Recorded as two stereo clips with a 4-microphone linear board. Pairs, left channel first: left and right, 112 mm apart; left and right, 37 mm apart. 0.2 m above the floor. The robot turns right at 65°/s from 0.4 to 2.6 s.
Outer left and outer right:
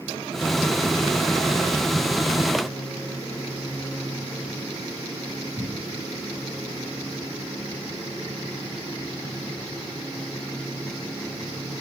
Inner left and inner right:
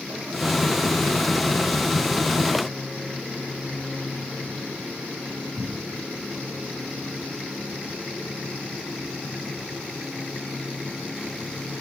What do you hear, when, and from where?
5.6 s a cupboard door: 25° left (ahead or behind), 1.5 m